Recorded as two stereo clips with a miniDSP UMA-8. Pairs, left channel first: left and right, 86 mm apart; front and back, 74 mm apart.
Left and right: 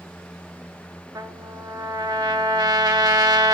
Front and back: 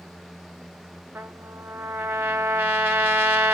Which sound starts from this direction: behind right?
A trumpet, at 1.1 s.